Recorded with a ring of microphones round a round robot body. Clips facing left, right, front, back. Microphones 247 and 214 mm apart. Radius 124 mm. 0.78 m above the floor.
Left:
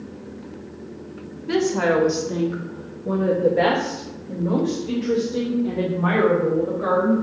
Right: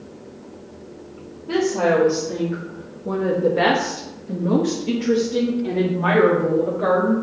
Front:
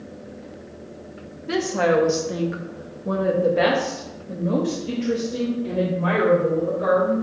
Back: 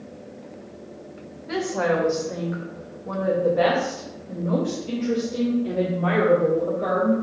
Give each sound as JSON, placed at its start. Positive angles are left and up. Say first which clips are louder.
{"t": 1.5, "sound": "a woman speaking", "louder": "right 1 dB, front 3 dB", "azimuth_deg": 45, "distance_m": 1.5}